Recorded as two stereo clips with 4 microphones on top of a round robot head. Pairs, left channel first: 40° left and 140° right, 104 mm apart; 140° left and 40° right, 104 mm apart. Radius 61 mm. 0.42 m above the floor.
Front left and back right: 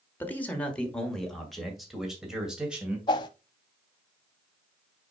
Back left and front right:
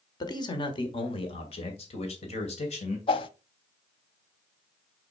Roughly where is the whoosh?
Left.